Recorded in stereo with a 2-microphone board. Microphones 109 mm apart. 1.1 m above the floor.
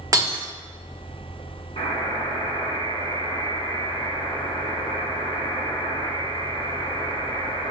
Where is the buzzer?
65° left (ahead or behind), 1.9 m.